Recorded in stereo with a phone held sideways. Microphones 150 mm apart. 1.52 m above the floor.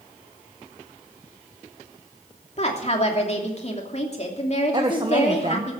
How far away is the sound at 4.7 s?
About 1.1 m.